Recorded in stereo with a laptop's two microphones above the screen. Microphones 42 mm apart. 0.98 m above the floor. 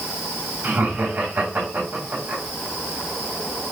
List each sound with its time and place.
0.6 s laughter: 65° right (ahead or behind), 3.5 m